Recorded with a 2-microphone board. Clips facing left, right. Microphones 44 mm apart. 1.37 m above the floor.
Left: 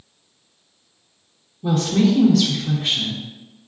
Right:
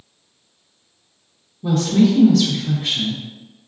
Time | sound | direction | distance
1.6 | a woman speaking | centre (ahead or behind) | 0.6 m